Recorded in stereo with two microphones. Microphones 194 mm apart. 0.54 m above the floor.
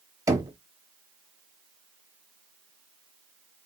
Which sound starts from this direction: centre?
Knocking, at 0.3 s.